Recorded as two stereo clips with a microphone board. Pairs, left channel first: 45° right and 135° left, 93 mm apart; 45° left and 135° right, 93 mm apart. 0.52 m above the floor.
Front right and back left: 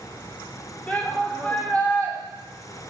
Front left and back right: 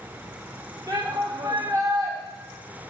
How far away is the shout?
About 1.8 m.